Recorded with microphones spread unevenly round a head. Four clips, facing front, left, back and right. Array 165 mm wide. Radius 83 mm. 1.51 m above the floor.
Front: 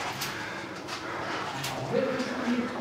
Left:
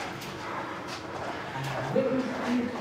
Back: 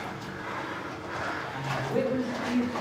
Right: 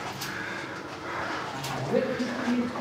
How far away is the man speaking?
About 3.5 m.